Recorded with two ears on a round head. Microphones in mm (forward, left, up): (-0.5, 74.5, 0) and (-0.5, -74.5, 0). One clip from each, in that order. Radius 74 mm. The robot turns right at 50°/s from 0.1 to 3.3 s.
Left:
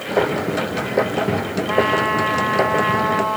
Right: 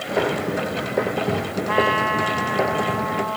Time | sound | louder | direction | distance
1.7 | a trumpet | left 1 dB | 25° right | ?